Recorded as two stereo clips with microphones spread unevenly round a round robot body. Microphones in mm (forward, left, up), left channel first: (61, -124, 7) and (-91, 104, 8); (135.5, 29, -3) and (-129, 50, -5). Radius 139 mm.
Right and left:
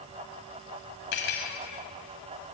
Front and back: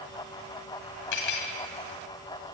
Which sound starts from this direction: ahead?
Cutlery clinking, at 1.1 s.